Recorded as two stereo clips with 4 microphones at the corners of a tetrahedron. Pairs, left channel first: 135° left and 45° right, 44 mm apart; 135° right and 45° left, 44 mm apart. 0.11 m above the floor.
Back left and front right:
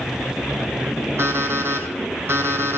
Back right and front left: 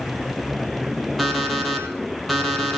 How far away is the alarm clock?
About 1.9 m.